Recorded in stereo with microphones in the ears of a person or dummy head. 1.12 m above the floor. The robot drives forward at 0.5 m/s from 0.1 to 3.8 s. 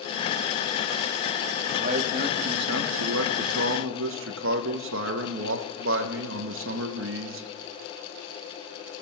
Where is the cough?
I don't hear a cough.